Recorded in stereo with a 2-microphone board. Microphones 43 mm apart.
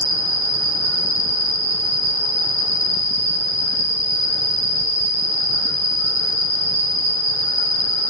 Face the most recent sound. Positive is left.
turn(degrees=-20)  # may be behind; listen again after turning